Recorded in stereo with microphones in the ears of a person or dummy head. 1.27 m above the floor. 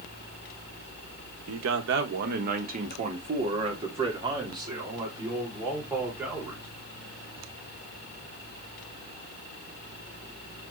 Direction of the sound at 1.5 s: 75° right (ahead or behind).